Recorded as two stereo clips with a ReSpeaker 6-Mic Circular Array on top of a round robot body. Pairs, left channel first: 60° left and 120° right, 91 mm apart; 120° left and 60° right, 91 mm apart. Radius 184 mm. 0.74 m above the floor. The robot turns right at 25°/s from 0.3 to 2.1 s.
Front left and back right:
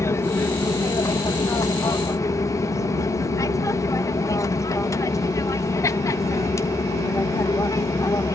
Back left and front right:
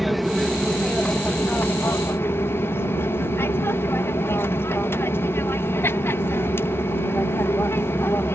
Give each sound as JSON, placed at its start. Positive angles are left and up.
{"t": 0.0, "sound": "an aircraft", "azimuth_deg": 30}